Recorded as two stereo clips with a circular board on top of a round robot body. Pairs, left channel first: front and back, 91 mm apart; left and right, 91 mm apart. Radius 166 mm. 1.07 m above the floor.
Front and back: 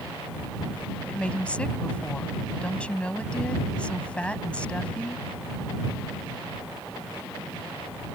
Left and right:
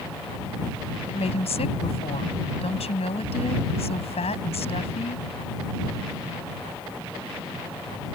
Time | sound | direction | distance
1.1 | a woman speaking | 80° left | ?